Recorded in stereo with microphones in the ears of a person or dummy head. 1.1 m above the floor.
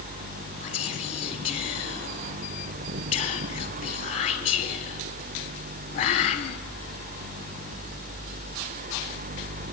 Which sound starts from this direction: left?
Whispering, at 0.6 s.